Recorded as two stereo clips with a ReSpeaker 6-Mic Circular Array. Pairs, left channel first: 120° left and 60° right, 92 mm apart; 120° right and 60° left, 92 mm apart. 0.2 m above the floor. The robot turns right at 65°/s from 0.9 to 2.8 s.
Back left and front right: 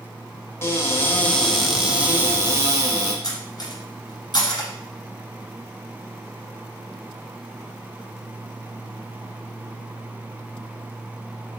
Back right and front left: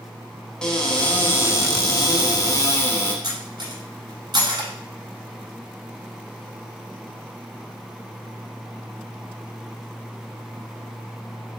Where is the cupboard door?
165° left, 0.8 m; by 3.1 s 75° right, 0.8 m.